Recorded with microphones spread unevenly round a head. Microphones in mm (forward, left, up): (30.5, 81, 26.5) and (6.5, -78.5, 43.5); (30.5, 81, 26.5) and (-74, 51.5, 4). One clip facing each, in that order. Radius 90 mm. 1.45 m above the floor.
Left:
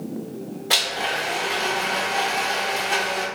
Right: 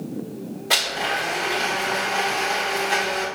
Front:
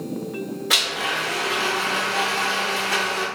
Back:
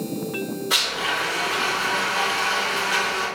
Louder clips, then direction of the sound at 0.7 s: Right 1 dB, even; 10° right.